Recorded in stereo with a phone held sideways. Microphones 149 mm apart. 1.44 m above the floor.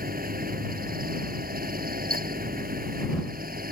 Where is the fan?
80° right.